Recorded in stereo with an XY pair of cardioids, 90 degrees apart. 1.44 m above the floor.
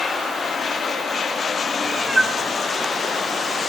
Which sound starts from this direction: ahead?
A cat meowing, at 1.8 s.